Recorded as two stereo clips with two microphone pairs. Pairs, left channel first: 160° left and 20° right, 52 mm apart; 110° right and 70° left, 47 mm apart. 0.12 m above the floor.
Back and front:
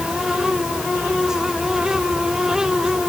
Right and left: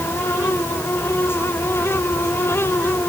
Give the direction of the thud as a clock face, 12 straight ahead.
No thud in this recording.